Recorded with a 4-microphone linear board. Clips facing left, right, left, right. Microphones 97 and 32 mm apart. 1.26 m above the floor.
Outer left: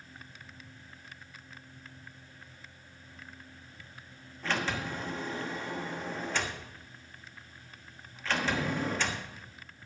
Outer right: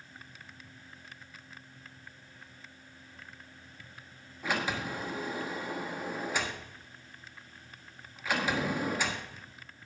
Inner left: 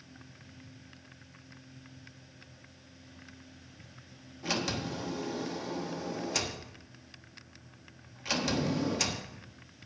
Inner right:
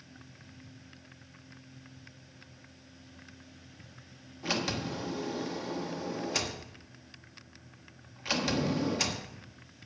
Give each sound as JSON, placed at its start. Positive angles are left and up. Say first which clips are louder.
{"t": 4.4, "sound": "a sliding door", "louder": "even, inner right 1 dB", "side_deg": -10, "distance_m": 1.2}